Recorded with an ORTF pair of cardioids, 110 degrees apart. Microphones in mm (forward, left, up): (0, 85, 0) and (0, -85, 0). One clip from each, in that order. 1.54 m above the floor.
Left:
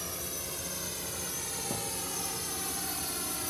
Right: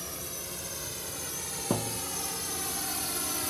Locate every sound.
0.0 s a drone: 10° left; by 3.5 s 20° right
1.7 s a thud: 55° right